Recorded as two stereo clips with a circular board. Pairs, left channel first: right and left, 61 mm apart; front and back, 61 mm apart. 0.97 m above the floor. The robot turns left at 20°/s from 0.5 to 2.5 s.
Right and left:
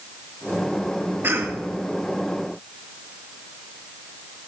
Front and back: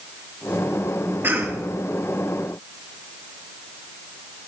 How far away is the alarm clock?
I don't hear an alarm clock.